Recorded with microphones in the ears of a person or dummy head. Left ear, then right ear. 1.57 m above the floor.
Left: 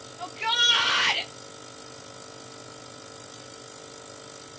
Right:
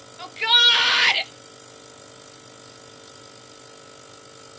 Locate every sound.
0.2 s a shout: 25° right (ahead or behind), 0.6 m